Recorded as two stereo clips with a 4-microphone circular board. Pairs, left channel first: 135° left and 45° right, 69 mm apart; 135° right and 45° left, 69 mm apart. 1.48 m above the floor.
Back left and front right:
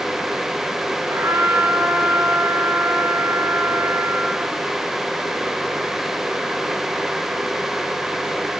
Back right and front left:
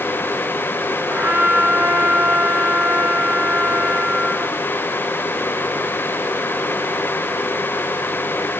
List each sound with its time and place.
1.1 s a trumpet: 5° right, 1.2 m